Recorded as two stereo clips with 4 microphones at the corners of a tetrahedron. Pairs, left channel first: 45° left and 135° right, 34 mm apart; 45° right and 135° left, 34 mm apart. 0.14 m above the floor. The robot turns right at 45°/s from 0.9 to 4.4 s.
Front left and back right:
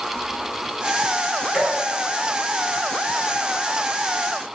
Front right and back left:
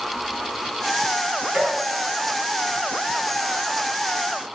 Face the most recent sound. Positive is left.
turn(degrees=-60)